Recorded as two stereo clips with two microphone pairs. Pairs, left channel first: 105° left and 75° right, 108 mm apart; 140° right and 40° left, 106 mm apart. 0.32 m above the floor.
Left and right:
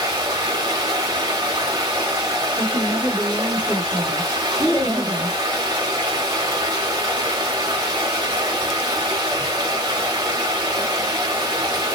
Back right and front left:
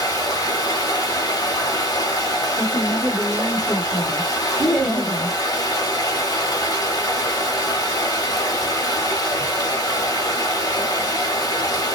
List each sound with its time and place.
0.0 s running water: 105° right, 0.9 m
2.6 s a woman speaking: 160° right, 1.6 m
4.6 s laughter: 60° right, 1.4 m